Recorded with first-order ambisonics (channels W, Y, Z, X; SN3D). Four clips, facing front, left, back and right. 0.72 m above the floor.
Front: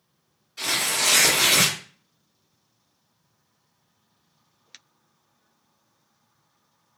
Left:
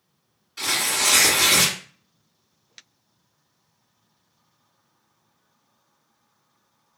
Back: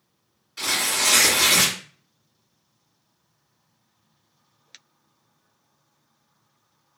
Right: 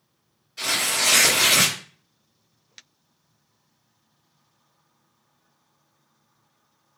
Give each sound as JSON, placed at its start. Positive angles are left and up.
{"t": 0.6, "sound": "tearing paper", "azimuth_deg": 145, "distance_m": 1.2}